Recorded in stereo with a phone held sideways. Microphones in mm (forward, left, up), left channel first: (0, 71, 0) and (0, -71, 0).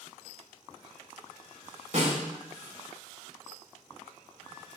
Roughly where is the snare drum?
Right.